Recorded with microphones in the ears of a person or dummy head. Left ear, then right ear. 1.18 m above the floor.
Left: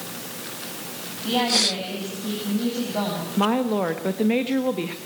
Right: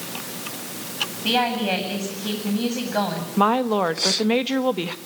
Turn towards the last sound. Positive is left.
turn(degrees=-35)  # may be behind; listen again after turning